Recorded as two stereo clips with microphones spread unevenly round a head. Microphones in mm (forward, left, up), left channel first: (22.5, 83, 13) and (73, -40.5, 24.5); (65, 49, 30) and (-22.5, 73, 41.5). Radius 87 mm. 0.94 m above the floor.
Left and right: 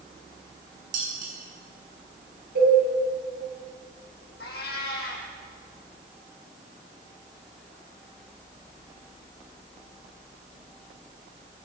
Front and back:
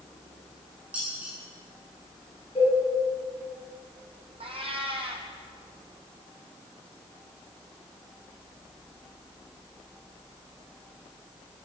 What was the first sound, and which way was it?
Dishes clattering, 115° right.